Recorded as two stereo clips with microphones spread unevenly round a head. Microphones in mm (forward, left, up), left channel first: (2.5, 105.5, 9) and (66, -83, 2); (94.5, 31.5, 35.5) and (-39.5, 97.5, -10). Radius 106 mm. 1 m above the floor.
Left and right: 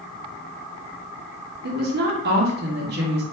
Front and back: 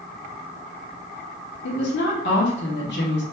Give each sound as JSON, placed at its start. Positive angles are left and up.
{"t": 1.6, "sound": "a woman speaking", "azimuth_deg": -45, "distance_m": 1.3}